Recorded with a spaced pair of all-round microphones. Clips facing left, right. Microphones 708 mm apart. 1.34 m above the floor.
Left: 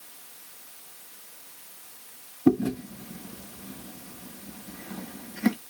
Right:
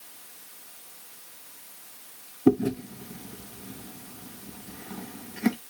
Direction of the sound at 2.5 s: 5° left (ahead or behind).